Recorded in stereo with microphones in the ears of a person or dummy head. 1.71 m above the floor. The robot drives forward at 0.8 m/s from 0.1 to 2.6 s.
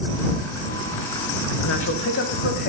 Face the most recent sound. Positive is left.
turn(degrees=50)  # may be behind; listen again after turning